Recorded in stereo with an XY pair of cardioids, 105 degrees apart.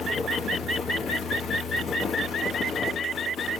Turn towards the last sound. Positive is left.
turn(degrees=55)